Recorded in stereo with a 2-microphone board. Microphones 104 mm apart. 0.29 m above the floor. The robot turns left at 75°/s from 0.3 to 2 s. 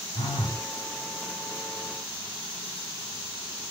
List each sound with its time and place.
0.1 s a phone buzzing: 55° left (ahead or behind), 2.5 m; by 0.7 s 25° left (ahead or behind), 2.5 m